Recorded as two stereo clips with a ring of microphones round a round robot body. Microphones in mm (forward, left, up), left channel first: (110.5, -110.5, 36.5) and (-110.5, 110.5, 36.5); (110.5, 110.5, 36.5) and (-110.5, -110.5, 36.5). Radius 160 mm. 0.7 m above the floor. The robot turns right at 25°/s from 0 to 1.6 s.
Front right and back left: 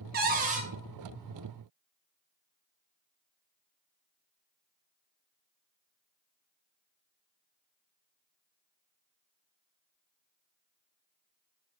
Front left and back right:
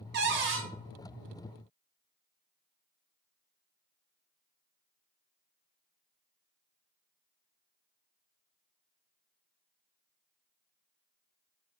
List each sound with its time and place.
0.1 s a cupboard door: straight behind, 0.6 m; by 0.7 s 165° right, 0.6 m